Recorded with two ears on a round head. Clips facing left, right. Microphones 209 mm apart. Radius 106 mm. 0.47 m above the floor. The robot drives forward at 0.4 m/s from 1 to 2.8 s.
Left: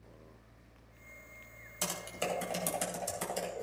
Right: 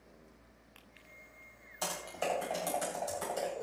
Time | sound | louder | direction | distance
1.8 | typing on a keyboard | right 1 dB | 30° left (ahead or behind) | 2.5 m